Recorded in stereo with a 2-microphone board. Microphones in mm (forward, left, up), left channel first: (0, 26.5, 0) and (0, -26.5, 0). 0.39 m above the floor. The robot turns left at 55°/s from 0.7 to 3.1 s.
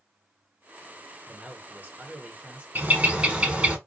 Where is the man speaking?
45° right, 0.9 m; by 2.6 s 120° right, 0.9 m.